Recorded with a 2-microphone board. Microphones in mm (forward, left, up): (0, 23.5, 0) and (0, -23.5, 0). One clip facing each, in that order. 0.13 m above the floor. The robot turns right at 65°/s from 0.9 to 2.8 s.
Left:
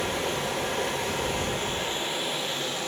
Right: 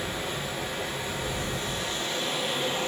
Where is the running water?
90° left, 0.8 m; by 2.9 s 150° right, 0.8 m.